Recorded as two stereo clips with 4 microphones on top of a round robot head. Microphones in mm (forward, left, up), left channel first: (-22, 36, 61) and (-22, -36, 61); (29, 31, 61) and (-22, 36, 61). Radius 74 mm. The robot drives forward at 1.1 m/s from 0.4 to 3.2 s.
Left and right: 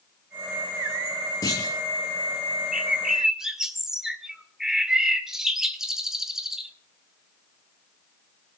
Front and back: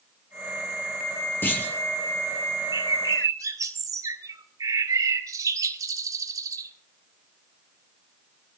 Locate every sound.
1.4 s a clunk: 45° left, 5 m
2.7 s a bird: 170° right, 1.7 m